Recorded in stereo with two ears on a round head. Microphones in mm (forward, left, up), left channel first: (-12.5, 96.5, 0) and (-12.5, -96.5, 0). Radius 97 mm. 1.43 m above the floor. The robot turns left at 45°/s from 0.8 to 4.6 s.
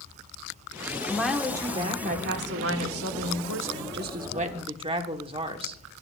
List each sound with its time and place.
1.1 s a woman speaking: 5° left, 1.2 m; by 5.8 s 155° right, 1.2 m